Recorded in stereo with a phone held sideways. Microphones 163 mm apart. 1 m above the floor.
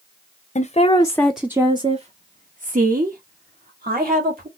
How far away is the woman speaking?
About 0.7 m.